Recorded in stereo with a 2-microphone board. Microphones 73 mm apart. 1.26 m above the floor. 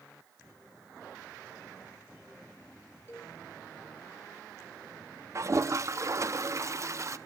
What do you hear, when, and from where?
3.1 s a cowbell: 35° left (ahead or behind), 6 m
5.3 s a toilet flushing: 40° right (ahead or behind), 0.7 m